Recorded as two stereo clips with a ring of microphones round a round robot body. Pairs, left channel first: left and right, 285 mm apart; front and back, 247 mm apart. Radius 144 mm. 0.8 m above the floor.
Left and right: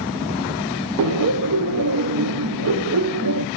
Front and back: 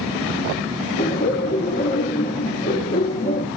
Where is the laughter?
60° right, 0.7 m.